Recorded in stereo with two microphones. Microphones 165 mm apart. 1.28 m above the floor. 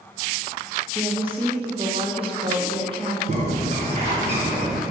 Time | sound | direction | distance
0.9 | a woman speaking | 30° right (ahead or behind) | 1.6 m
3.3 | a bird | 45° right (ahead or behind) | 3.5 m